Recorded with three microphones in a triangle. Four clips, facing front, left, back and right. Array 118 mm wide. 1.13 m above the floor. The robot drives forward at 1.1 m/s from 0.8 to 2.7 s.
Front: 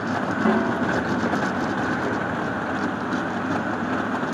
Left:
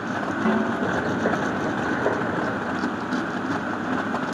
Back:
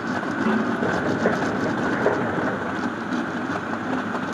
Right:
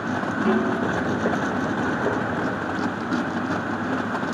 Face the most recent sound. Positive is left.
turn(degrees=50)